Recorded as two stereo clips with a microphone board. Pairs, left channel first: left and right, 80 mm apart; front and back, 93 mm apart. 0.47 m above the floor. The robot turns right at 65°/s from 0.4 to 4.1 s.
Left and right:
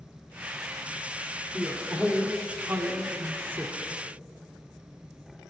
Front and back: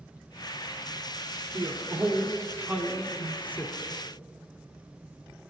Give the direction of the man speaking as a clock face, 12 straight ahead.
6 o'clock.